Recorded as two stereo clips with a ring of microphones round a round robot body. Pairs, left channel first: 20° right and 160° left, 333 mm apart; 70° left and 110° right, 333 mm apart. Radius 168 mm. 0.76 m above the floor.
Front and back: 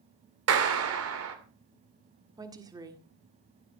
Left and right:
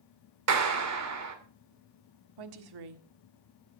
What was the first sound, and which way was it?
A clap, 155° right.